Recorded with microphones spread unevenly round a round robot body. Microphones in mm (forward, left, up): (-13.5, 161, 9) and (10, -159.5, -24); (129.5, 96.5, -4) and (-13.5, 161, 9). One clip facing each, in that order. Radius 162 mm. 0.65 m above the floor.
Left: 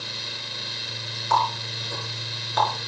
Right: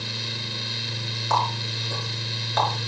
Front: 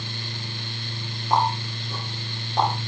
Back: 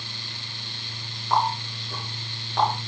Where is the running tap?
105° right, 5.5 m.